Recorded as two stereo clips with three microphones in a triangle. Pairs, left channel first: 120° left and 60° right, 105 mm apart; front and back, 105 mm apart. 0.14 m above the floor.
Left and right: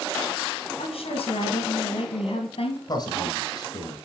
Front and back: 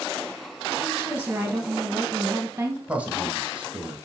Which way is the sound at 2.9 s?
110° left.